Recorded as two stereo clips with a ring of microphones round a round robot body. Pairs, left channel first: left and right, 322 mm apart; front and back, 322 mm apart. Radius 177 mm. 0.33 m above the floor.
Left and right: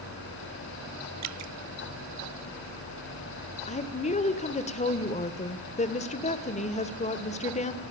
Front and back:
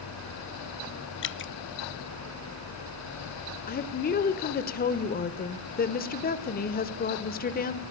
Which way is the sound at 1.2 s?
50° right.